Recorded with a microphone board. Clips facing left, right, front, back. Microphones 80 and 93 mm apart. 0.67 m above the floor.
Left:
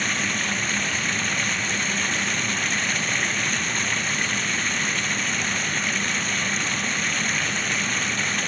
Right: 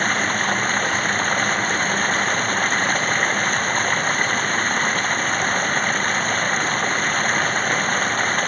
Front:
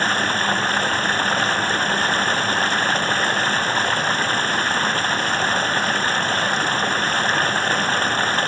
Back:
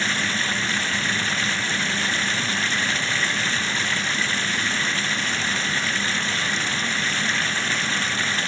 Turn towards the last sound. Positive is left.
turn(degrees=-45)